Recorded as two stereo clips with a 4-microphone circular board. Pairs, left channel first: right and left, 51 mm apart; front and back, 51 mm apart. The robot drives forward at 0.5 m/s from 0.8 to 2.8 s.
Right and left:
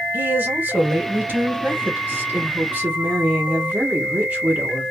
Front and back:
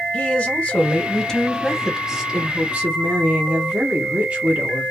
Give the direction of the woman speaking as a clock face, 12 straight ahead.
10 o'clock.